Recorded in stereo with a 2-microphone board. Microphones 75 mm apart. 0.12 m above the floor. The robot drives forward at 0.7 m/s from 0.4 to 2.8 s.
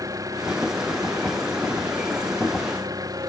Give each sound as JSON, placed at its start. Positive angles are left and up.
{"t": 0.0, "sound": "an engine running", "side_deg": -50}